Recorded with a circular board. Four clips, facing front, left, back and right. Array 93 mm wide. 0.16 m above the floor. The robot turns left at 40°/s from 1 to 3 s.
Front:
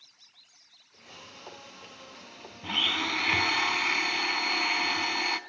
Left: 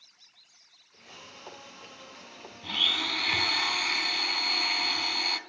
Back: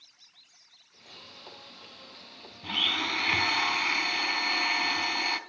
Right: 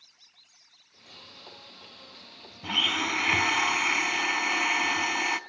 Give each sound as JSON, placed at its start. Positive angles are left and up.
{"t": 2.6, "sound": "a blender", "azimuth_deg": -75, "distance_m": 0.8}